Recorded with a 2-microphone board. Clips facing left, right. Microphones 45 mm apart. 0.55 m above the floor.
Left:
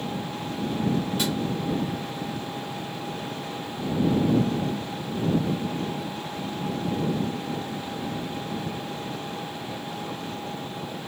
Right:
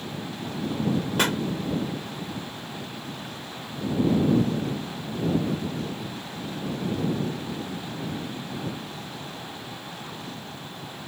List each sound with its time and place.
0.0 s an engine running: 40° left (ahead or behind)
1.2 s a pop: 60° right (ahead or behind)